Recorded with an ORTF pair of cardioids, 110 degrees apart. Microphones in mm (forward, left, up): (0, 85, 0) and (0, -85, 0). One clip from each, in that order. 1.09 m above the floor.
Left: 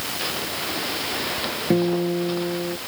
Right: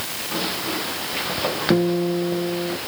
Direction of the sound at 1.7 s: 5° right.